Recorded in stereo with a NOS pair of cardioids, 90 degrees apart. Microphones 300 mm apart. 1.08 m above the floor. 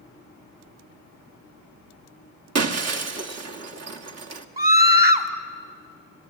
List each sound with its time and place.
2.5 s breaking glass: 55° right, 1.7 m
4.6 s a scream: 30° right, 2.5 m